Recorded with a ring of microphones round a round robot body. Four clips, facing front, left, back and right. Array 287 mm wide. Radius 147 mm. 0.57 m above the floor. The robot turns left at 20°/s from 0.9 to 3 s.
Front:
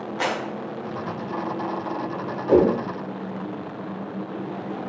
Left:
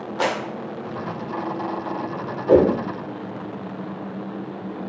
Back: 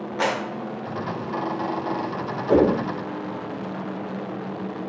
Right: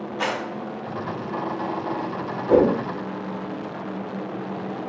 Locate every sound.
0.2 s a clap: 115° left, 2 m
2.5 s a whoosh: 95° left, 4 m; by 2.8 s 90° left, 4 m